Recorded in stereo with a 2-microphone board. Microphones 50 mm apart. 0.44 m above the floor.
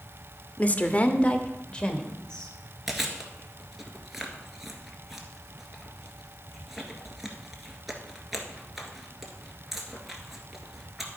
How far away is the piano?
I don't hear a piano.